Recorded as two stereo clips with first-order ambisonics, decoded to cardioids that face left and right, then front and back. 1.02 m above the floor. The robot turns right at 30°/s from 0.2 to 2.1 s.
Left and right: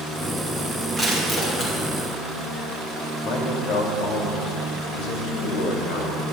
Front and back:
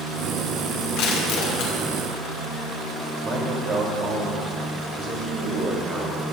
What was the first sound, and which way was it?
Crushing, 10° left.